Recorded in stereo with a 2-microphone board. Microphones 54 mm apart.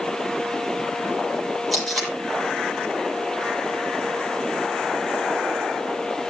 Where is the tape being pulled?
Centre (ahead or behind), 7.5 m.